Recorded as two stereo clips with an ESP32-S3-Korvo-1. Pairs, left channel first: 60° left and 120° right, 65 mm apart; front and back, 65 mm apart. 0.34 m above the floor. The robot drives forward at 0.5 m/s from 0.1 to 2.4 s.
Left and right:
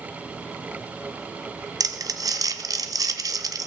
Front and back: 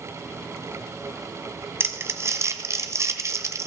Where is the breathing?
No breathing in this recording.